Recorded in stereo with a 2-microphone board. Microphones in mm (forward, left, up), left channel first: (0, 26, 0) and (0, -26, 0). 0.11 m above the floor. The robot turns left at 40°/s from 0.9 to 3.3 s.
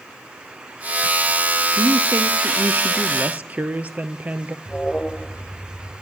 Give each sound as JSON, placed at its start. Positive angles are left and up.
{"t": 1.7, "sound": "a woman speaking", "azimuth_deg": -80, "distance_m": 2.0}
{"t": 4.7, "sound": "an alarm", "side_deg": 20, "distance_m": 4.5}